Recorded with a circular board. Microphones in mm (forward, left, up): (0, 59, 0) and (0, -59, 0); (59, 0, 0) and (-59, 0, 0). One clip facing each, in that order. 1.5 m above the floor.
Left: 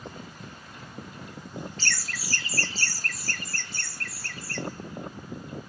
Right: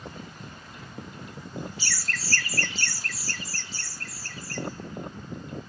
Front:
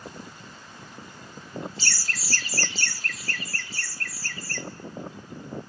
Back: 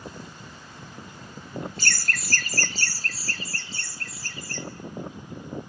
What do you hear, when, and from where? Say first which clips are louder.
1.8 s laughter: even, back 4 dB; 165° right, 0.7 m; by 4.6 s 110° left, 1.8 m